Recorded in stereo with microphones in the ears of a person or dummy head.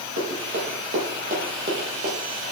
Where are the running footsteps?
50° right (ahead or behind), 5.5 m; by 2.2 s 35° right (ahead or behind), 4 m.